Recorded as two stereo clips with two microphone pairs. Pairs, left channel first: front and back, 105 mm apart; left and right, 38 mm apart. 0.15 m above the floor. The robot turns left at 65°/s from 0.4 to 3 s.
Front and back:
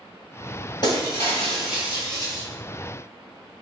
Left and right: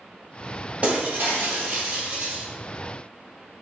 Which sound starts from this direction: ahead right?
Breaking glass, at 0.8 s.